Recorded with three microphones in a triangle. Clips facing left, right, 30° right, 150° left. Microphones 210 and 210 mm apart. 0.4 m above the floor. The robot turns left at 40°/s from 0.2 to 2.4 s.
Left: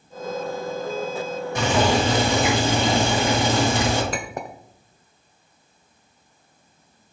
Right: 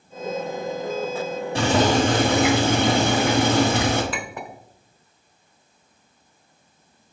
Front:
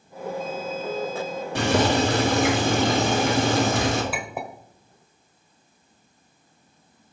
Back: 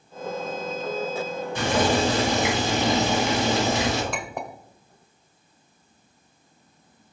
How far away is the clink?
About 0.7 m.